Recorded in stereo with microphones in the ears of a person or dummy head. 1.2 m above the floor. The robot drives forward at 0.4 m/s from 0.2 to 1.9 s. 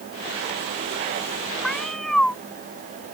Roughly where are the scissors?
No scissors in this recording.